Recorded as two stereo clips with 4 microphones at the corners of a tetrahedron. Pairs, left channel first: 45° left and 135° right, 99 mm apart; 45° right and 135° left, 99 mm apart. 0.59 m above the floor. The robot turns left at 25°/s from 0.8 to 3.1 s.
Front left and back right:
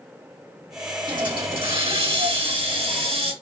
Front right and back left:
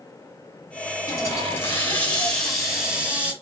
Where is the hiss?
95° right, 1.7 m; by 3.3 s 145° right, 1.7 m.